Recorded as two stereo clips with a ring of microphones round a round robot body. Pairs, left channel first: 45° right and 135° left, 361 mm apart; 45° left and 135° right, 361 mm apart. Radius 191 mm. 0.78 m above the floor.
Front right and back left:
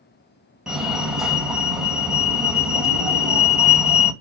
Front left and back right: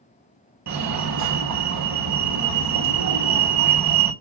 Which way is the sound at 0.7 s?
135° right.